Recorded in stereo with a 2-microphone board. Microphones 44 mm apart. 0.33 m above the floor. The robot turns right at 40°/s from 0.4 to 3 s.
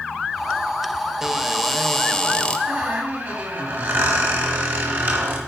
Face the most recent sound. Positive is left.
turn(degrees=-50)  # may be behind; listen again after turning